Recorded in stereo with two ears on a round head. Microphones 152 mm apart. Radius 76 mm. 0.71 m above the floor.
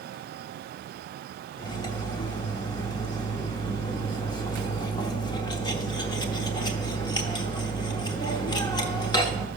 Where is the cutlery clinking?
25° left (ahead or behind), 0.9 m.